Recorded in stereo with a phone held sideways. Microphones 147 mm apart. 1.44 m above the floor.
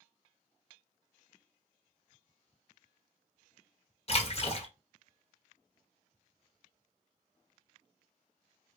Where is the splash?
40° left (ahead or behind), 0.9 m.